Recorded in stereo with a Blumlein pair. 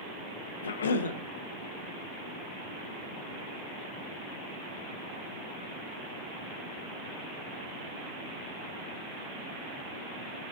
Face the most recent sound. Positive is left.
turn(degrees=65)